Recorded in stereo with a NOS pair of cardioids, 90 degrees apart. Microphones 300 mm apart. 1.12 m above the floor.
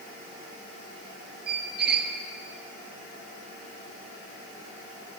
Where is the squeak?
35° right, 1.1 m.